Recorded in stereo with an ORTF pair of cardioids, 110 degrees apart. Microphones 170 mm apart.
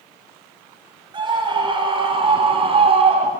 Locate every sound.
1.1 s a scream: 30° right, 6.5 m; by 3.3 s 35° right, 5 m